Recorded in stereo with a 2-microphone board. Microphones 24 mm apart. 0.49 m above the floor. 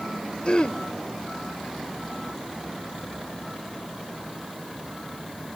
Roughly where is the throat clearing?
Left.